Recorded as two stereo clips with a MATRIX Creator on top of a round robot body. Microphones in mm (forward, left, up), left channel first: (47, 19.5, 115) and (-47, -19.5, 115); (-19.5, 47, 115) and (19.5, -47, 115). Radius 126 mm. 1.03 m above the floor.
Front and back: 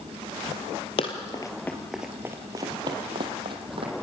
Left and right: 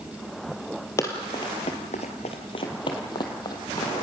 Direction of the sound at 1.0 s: 50° left.